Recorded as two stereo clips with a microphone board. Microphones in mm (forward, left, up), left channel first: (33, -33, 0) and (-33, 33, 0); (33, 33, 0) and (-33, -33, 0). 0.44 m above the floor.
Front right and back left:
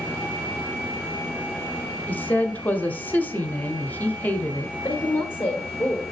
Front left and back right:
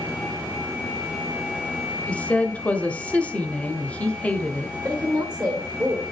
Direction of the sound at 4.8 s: 105° right.